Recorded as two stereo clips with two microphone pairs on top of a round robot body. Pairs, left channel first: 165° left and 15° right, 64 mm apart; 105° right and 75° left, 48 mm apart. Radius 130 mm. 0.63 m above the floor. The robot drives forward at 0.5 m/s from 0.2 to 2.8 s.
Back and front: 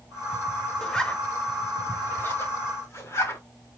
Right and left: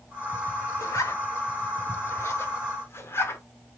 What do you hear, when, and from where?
0.8 s a zipper: 115° right, 1.2 m; by 3.4 s 145° right, 1.9 m